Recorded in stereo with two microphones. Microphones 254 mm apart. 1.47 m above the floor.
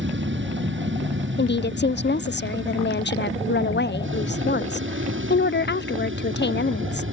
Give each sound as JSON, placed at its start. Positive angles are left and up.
{"t": 0.0, "sound": "an aircraft", "side_deg": -50}
{"t": 1.4, "sound": "a woman speaking", "side_deg": 45}